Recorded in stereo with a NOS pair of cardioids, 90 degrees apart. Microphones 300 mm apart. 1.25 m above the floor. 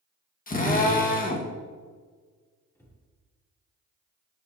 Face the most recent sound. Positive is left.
turn(degrees=10)